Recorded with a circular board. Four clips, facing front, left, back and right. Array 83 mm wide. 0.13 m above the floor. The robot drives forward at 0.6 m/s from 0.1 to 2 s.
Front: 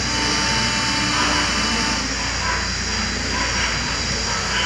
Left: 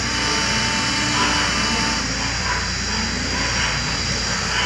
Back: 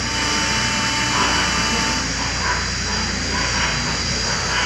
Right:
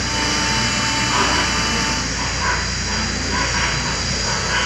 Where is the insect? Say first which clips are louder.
Right 1 dB, even; 50° right, 0.8 m; by 4.7 s 135° right, 0.9 m.